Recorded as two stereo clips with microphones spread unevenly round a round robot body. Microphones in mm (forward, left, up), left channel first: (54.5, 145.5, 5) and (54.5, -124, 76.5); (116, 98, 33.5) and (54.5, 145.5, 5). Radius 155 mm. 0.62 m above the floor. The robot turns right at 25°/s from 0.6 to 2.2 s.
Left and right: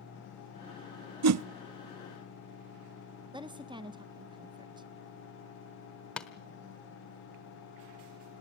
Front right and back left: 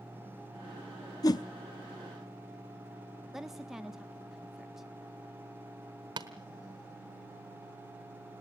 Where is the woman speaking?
175° right, 0.8 m.